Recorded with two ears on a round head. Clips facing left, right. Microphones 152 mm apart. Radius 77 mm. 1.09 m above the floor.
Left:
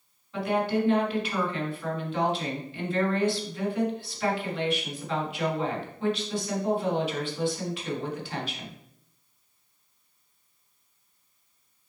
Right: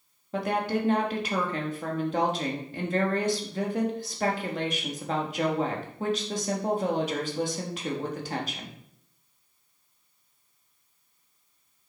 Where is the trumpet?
No trumpet in this recording.